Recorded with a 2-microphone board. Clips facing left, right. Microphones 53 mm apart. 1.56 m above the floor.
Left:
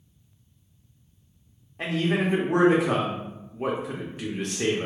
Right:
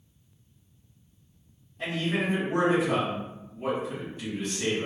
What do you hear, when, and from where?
1.8 s a man speaking: 65° left (ahead or behind), 1.0 m